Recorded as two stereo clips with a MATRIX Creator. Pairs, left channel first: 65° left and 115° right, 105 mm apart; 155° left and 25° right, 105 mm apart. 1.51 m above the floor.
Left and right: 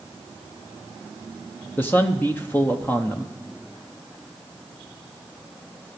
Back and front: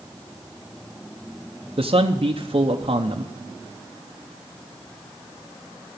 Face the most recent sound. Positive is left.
turn(degrees=-5)